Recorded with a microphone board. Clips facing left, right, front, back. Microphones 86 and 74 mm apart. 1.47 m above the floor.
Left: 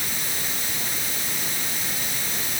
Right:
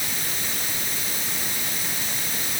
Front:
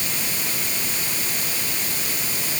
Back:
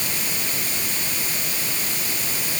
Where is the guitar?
I don't hear a guitar.